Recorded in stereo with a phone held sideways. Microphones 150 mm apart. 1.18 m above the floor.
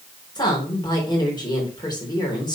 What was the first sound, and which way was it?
A woman speaking, 30° left (ahead or behind).